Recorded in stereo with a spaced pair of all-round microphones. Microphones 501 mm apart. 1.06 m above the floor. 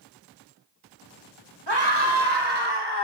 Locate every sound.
1.7 s a scream: 55° right (ahead or behind), 2.0 m; by 3.0 s 50° right (ahead or behind), 2.5 m